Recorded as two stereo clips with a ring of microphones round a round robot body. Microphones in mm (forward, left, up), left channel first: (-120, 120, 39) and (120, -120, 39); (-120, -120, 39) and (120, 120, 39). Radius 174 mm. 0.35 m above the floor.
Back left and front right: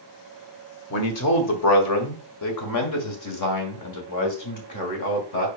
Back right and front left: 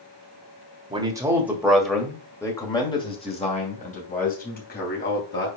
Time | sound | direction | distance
0.9 | a man speaking | 115° left | 1.9 m